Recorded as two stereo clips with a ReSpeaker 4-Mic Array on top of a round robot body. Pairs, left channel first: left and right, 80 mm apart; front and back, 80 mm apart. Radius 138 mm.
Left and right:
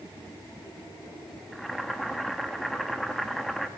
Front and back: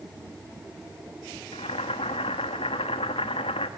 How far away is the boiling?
About 0.7 m.